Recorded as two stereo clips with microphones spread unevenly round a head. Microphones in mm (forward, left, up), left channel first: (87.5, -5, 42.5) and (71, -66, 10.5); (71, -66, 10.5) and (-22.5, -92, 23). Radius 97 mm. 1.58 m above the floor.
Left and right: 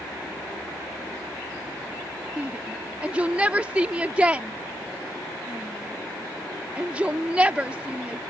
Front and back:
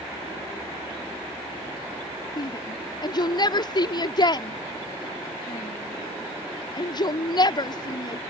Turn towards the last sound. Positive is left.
turn(degrees=-25)